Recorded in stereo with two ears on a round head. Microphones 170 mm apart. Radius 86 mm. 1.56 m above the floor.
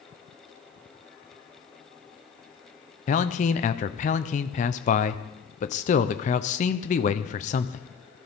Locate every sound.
3.1 s a man speaking: 40° left (ahead or behind), 0.7 m